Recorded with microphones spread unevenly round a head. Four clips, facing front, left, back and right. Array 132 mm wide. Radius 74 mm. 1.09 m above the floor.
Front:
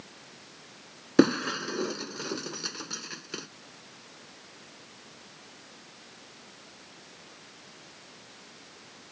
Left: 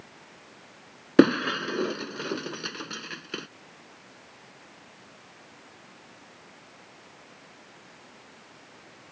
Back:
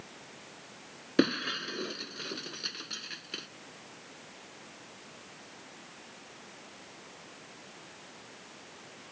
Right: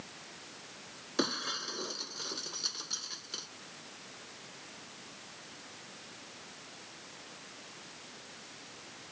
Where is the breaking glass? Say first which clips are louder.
Left 16 dB, front 6 dB; 65° left.